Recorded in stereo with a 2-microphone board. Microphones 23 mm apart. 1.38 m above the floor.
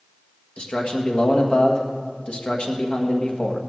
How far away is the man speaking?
About 1.6 m.